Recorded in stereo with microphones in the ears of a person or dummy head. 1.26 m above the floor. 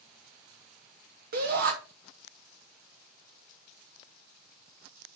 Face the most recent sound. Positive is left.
turn(degrees=-50)  # may be behind; listen again after turning